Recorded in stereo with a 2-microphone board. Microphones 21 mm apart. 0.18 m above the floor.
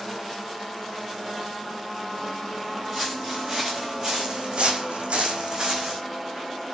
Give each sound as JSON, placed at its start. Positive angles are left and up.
{"t": 2.9, "sound": "footsteps", "side_deg": -20, "distance_m": 1.5}